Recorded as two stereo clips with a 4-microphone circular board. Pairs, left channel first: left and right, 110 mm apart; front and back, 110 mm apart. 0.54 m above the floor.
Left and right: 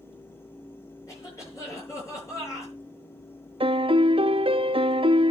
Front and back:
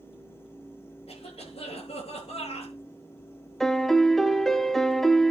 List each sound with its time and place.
1.1 s a cough: 30° left, 7.5 m
3.6 s a piano: 85° right, 0.5 m